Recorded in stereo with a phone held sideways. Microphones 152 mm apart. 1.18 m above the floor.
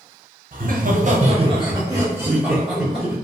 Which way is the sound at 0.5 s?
65° right (ahead or behind).